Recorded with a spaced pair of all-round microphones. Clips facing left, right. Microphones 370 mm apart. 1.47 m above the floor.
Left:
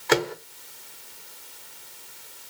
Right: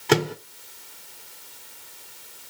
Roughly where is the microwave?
Right.